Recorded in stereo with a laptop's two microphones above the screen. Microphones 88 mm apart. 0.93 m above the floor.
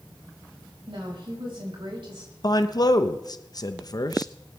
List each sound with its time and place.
0.9 s a woman speaking: 70° right (ahead or behind), 5 m
2.4 s a man speaking: 45° left (ahead or behind), 0.8 m